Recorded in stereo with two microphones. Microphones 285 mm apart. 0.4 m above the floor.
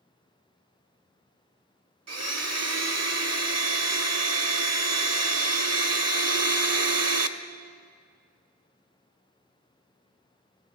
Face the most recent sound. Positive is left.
turn(degrees=-60)  # may be behind; listen again after turning